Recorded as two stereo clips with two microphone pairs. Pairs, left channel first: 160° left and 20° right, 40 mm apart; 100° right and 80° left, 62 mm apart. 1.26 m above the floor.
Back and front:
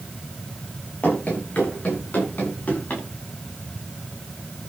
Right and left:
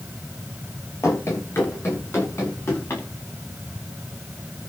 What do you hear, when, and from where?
1.0 s running footsteps: 145° right, 8.5 m; by 3.0 s 150° right, 10 m